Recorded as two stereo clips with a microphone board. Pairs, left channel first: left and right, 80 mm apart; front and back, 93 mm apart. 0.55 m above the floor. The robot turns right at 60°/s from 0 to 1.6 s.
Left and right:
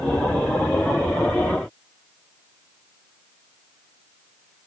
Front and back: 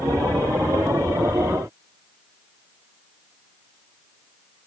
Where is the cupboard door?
No cupboard door in this recording.